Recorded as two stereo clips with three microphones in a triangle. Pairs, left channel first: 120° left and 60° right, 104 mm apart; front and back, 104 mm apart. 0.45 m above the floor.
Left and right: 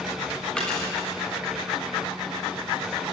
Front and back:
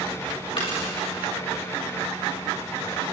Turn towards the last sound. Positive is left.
turn(degrees=40)